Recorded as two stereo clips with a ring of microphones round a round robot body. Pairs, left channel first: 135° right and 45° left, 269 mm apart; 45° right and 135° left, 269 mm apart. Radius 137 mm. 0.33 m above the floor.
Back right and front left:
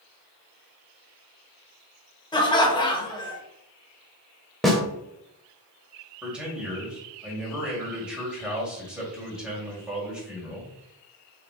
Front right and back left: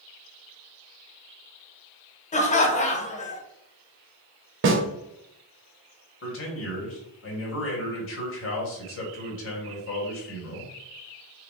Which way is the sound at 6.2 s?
40° right.